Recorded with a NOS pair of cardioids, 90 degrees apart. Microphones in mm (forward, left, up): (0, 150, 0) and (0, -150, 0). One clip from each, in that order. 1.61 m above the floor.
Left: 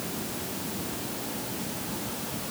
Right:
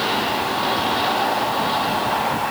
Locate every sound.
Only background noise.